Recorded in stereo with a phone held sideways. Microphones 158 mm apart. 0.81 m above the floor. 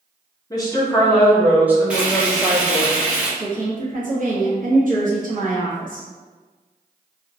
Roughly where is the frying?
Centre.